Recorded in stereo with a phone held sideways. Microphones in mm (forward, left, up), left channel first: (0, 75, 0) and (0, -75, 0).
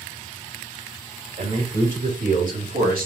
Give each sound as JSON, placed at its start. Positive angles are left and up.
{"t": 1.4, "sound": "a man speaking", "side_deg": -60, "distance_m": 3.5}